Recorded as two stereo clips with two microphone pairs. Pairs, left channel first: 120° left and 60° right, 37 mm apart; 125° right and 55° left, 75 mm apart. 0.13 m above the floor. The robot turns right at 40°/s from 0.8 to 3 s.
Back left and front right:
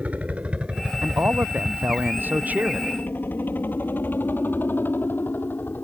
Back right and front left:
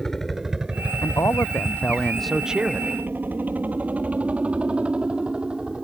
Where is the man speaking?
85° right; by 3.0 s 5° right.